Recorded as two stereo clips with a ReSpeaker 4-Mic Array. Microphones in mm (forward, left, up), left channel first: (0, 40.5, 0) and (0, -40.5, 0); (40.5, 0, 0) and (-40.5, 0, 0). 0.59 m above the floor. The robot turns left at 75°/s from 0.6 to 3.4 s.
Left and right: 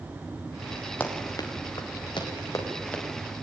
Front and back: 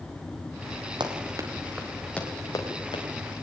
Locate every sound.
1.0 s running footsteps: 160° left, 5.5 m; by 3.3 s 10° right, 7 m